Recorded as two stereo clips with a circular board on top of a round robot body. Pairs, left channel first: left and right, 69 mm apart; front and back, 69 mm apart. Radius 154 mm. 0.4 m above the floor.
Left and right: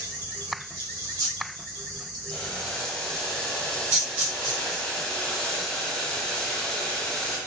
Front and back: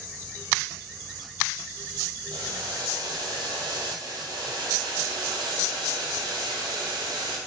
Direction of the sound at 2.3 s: 170° left.